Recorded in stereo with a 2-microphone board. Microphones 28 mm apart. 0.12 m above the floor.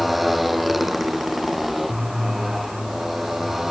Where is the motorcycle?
Centre (ahead or behind); by 3.7 s 5° right (ahead or behind).